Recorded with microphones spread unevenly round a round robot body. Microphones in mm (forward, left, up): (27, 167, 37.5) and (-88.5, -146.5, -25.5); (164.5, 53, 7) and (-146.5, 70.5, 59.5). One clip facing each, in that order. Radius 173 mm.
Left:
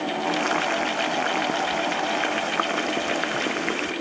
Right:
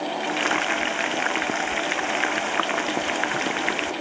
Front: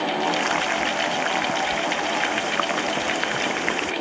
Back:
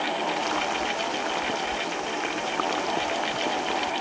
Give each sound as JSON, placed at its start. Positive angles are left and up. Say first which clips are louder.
{"t": 0.2, "sound": "frying", "louder": "left 2 dB, front 4 dB", "azimuth_deg": -30}